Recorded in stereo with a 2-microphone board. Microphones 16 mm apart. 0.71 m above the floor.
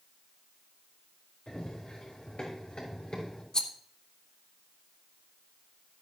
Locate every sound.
1.5 s running footsteps: 80° left, 5.5 m; by 3.4 s 75° left (ahead or behind), 5 m
3.5 s a rattle: 50° left (ahead or behind), 1.0 m